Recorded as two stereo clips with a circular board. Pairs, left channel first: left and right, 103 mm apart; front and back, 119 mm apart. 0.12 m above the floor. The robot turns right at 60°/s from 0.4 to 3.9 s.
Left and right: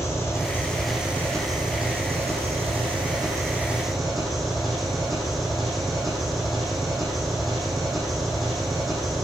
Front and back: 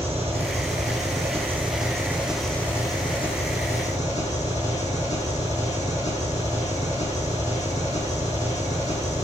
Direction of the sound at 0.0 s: 150° left.